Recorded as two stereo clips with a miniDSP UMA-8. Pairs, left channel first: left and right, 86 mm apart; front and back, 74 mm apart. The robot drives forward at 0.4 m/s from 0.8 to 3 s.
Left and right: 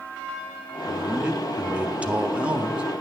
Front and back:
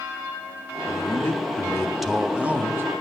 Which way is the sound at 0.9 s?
20° right.